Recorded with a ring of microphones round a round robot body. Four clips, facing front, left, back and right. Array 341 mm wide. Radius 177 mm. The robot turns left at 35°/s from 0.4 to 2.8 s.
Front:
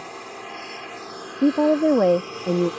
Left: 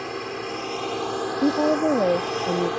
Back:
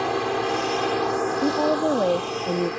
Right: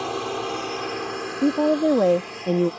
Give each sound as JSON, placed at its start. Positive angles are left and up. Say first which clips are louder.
{"t": 0.0, "sound": "a drone", "louder": "right 4 dB, back 13 dB", "azimuth_deg": -170}
{"t": 1.4, "sound": "a woman speaking", "louder": "right 1 dB, front 6 dB", "azimuth_deg": -10}